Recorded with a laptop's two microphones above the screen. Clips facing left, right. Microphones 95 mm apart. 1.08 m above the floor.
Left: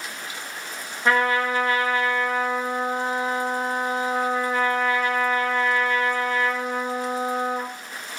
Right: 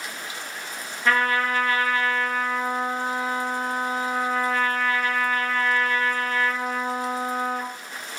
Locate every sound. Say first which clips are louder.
1.1 s a trumpet: left 1 dB; 25° left (ahead or behind), 2 m